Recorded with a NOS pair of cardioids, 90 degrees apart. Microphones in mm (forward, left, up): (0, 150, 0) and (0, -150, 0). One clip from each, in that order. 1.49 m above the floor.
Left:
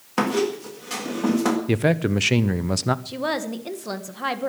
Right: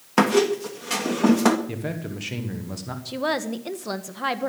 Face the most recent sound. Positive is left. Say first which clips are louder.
# right 1 dB
turn(degrees=-5)